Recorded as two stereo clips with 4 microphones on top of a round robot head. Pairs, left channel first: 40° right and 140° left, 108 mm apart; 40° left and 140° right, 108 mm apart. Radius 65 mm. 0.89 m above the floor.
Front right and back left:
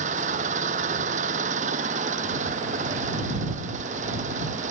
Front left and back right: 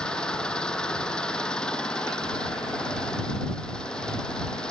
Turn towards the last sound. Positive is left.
turn(degrees=125)